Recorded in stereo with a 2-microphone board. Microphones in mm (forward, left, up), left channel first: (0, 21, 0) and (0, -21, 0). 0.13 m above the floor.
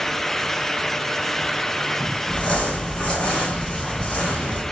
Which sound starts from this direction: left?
Crumpling, at 2.3 s.